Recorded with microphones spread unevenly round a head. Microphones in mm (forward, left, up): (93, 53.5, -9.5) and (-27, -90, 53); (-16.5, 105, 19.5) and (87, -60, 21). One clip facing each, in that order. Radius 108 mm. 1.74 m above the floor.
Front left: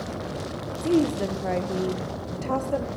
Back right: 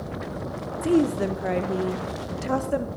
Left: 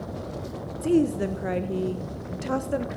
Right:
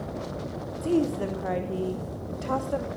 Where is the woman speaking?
175° right, 0.8 m.